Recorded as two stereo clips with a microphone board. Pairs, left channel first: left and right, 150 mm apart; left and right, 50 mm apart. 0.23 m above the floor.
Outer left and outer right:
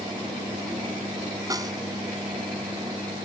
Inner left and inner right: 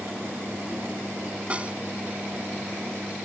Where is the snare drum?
25° right (ahead or behind).